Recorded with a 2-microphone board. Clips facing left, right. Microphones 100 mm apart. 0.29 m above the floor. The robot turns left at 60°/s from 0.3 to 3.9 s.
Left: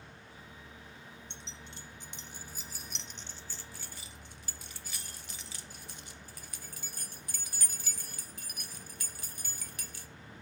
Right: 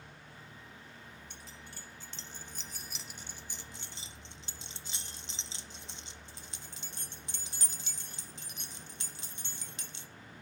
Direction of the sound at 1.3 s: 25° left (ahead or behind).